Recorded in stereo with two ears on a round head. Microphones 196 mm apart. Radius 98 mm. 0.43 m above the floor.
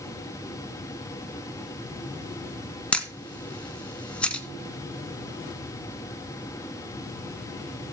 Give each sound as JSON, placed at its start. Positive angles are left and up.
{"t": 2.9, "sound": "a camera shutter", "side_deg": 5, "distance_m": 1.1}